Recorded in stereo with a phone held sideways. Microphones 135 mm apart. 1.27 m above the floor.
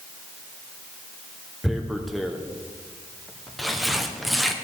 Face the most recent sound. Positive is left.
turn(degrees=0)  # may be behind; listen again after turning